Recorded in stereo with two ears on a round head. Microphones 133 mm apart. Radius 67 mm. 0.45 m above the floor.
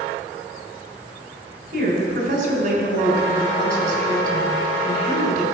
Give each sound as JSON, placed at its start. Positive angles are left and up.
{"t": 1.7, "sound": "a woman speaking", "side_deg": -55, "distance_m": 3.0}